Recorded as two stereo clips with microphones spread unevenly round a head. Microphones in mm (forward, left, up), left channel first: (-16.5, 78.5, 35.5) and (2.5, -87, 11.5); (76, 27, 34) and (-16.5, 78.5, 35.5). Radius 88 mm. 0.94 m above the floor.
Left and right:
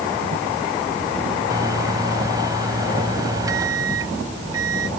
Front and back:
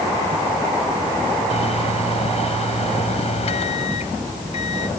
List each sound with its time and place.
1.5 s a microwave: 15° right